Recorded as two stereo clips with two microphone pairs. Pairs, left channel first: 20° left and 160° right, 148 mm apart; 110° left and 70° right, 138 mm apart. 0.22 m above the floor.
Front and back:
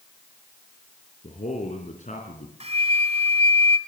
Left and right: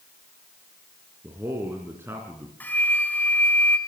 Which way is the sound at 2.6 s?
175° right.